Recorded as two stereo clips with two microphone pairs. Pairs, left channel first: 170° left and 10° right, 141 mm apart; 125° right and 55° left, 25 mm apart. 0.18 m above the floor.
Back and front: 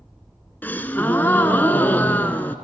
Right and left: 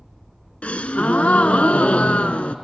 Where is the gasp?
115° right, 0.6 m.